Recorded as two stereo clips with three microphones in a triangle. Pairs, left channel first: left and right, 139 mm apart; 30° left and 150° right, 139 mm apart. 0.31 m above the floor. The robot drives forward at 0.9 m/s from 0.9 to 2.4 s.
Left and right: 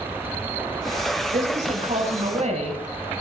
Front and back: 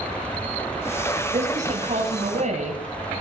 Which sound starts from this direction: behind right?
A woman speaking, at 1.3 s.